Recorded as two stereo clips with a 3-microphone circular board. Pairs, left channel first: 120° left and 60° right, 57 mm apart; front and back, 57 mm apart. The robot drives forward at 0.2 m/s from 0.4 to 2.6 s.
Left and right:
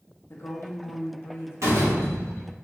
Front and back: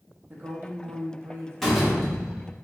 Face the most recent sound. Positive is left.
turn(degrees=-100)